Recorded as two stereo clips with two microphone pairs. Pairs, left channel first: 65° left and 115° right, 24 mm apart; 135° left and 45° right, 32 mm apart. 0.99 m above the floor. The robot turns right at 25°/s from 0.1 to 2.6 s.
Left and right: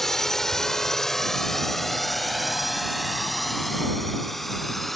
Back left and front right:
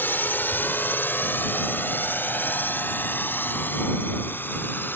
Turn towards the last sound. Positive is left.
turn(degrees=145)